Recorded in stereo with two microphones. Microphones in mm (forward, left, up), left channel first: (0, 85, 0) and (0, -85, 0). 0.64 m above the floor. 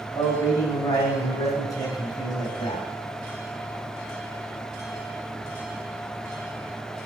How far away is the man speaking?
About 4 m.